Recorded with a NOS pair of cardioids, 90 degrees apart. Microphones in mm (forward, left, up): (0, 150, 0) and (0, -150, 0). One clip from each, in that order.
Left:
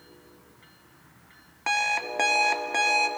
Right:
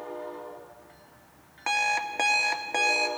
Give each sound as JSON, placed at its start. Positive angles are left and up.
{"t": 1.7, "sound": "an alarm clock", "azimuth_deg": 0, "distance_m": 0.6}